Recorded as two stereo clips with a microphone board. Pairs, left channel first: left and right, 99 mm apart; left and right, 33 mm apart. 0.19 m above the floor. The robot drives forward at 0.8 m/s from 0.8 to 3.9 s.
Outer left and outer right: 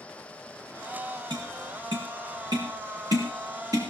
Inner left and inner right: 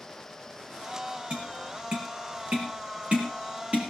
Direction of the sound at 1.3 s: 55° right (ahead or behind).